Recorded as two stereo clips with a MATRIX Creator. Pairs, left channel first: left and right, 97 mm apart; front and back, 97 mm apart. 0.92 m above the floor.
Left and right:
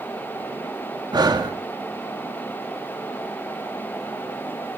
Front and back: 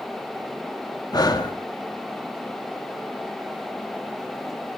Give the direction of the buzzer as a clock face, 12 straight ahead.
I don't hear a buzzer.